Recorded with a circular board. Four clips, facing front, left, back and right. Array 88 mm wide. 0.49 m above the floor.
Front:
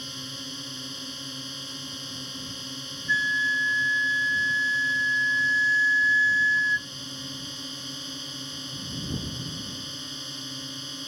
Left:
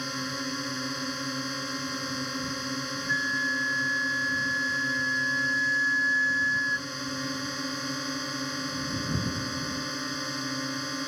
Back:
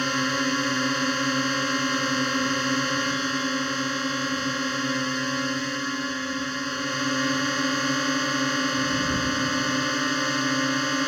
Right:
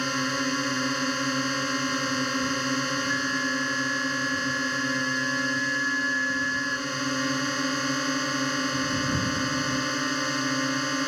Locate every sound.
0.0 s a drone: 155° right
3.1 s a flute: 10° left